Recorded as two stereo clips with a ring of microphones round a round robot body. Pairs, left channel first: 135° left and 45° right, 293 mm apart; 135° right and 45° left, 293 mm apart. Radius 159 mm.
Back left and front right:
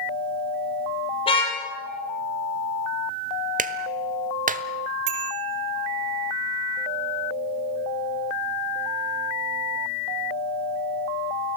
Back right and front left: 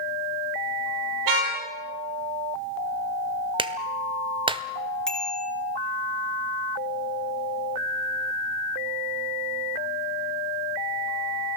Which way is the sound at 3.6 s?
10° right.